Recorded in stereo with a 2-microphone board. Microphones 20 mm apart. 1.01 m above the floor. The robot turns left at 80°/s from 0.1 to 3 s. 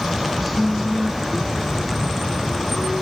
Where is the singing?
130° right, 1.7 m; by 3.0 s 35° left, 1.7 m.